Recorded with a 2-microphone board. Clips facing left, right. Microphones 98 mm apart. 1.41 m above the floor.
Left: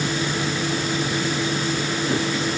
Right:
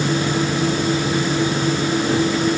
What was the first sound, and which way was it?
Only background noise.